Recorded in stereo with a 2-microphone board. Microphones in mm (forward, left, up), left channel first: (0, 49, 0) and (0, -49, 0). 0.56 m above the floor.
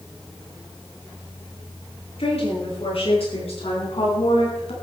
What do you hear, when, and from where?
2.2 s a woman speaking: 75° left (ahead or behind), 8 m; by 4.7 s 80° left, 4.5 m